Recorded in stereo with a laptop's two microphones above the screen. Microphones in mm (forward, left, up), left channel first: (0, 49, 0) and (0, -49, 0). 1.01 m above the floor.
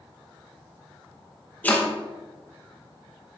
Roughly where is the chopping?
Centre.